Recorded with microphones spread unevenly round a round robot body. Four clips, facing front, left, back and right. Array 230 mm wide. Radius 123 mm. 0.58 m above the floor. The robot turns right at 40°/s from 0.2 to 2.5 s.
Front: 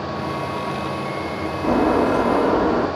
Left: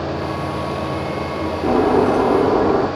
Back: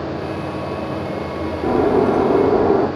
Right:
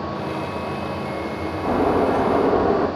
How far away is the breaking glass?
About 6 m.